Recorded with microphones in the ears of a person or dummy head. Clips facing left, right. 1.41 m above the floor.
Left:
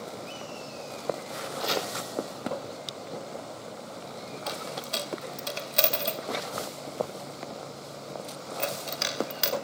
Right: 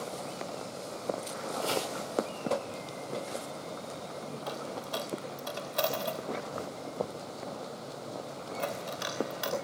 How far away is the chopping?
About 5 m.